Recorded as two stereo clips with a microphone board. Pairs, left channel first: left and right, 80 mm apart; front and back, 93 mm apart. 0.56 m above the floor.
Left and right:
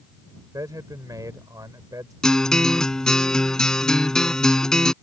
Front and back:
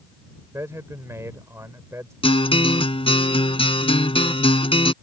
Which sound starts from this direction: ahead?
A guitar, at 2.2 s.